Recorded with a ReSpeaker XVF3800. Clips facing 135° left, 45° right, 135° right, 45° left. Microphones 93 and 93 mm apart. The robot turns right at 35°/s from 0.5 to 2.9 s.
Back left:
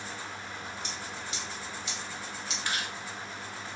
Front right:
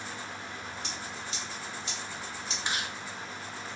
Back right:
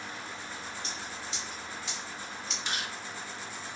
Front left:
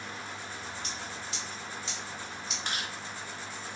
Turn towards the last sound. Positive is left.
turn(degrees=25)